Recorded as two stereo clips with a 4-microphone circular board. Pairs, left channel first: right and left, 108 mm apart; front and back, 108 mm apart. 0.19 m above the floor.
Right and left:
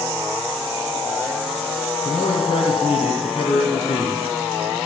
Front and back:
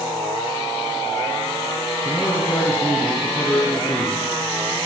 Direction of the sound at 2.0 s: 60° right.